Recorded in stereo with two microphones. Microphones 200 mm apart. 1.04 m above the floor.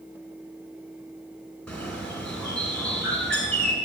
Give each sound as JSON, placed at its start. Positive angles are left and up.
{"t": 1.7, "sound": "a bird", "side_deg": 5, "distance_m": 4.5}